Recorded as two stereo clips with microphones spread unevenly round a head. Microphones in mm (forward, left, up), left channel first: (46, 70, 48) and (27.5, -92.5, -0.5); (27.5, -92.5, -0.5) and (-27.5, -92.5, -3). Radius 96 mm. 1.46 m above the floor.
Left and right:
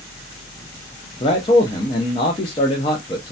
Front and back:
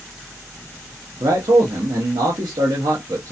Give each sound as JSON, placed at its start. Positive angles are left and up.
{"t": 1.2, "sound": "a man speaking", "azimuth_deg": 150, "distance_m": 0.7}